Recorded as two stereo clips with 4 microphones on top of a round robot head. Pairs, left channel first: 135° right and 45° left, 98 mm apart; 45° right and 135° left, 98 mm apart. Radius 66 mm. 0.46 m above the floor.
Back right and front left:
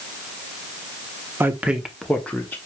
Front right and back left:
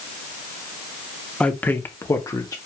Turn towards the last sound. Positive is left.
turn(degrees=-75)